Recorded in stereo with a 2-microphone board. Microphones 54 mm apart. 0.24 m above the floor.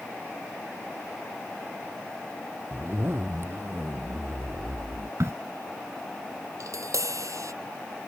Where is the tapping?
75° right (ahead or behind).